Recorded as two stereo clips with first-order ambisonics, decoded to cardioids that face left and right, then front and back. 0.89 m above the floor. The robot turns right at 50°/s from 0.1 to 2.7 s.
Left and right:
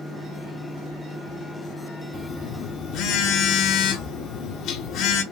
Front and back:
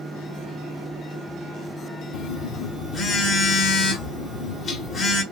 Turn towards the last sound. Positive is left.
turn(degrees=60)